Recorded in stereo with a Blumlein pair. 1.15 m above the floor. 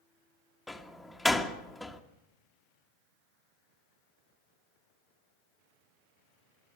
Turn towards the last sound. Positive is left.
turn(degrees=0)